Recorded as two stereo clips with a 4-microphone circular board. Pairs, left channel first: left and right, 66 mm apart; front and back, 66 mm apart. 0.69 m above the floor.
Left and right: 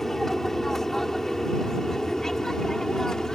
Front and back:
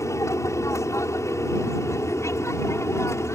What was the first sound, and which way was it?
An aircraft, 5° left.